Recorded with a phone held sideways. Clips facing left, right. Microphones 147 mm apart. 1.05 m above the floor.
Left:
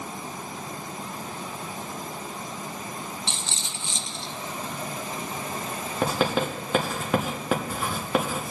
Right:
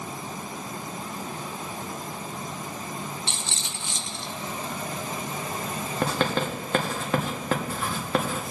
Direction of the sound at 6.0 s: 5° left (ahead or behind).